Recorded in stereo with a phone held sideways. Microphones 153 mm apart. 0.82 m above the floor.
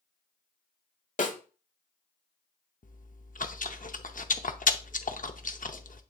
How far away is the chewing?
About 0.6 m.